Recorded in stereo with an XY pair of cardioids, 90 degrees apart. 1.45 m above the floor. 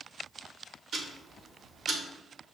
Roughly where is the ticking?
Ahead right.